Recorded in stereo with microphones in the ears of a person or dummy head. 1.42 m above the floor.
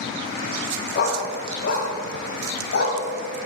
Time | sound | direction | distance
0.9 | a dog barking | 50° left (ahead or behind) | 2.5 m